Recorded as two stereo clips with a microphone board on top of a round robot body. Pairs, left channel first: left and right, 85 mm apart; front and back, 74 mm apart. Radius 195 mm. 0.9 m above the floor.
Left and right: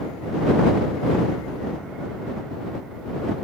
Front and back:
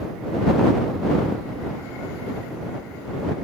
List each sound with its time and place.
Only background noise.